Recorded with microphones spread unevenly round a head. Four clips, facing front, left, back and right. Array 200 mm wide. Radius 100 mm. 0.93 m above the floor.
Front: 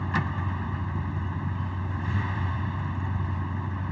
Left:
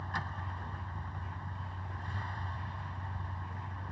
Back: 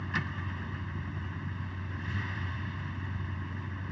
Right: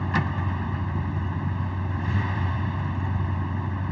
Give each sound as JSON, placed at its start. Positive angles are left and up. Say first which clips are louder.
{"t": 0.0, "sound": "a vehicle", "louder": "right 12 dB, front 7 dB", "azimuth_deg": -70}